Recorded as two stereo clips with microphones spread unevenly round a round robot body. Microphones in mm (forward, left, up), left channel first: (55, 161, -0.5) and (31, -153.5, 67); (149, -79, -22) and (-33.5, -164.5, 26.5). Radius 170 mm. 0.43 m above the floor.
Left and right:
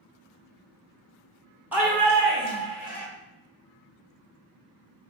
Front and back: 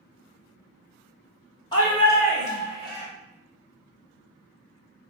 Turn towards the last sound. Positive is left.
turn(degrees=40)